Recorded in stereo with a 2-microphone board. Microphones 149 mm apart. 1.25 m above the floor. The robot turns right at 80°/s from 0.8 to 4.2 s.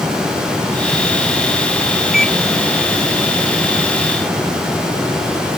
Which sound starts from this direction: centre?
A microwave, at 2.1 s.